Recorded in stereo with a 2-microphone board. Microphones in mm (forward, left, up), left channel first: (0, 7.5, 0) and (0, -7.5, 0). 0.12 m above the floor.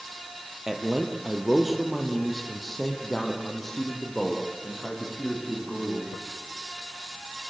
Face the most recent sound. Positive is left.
turn(degrees=35)  # may be behind; listen again after turning